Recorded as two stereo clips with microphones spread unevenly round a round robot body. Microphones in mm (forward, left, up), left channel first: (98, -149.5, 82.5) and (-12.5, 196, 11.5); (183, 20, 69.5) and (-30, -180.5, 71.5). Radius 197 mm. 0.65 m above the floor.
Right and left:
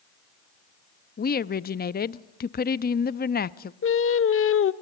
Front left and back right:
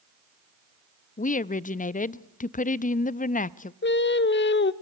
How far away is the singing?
About 0.8 m.